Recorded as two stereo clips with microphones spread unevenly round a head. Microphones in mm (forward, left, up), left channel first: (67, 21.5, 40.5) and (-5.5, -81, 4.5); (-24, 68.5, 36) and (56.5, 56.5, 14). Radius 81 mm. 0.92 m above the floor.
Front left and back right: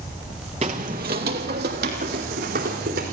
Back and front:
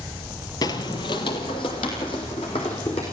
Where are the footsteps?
175° left, 1.4 m; by 3.0 s 145° right, 4.5 m.